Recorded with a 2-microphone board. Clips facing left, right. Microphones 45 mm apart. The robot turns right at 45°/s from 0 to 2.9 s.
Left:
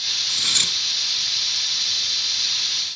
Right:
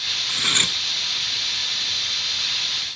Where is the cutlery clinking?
25° right (ahead or behind), 1.0 m; by 0.8 s 35° right (ahead or behind), 1.0 m.